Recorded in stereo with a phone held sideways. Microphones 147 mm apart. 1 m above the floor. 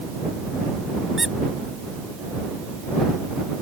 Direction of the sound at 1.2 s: Centre (ahead or behind).